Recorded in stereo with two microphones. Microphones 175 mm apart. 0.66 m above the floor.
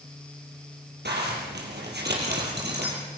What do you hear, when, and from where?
1.1 s a zipper: 75° right (ahead or behind), 6.5 m